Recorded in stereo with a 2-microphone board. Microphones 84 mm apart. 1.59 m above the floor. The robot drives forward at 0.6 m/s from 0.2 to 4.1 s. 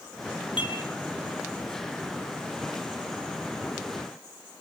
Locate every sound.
0.6 s dishes clattering: 80° left, 7 m